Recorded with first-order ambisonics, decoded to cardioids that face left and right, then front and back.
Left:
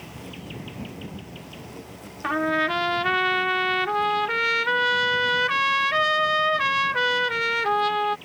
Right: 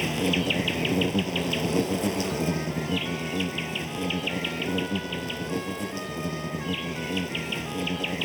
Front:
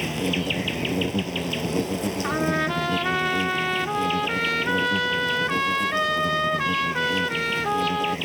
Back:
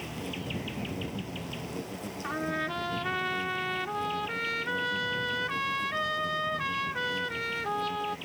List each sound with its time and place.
0.0 s an insect: 50° right
2.2 s a trumpet: 65° left